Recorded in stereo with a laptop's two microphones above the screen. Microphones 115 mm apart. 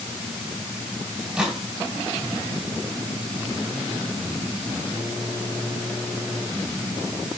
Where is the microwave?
5° right (ahead or behind), 4.5 m.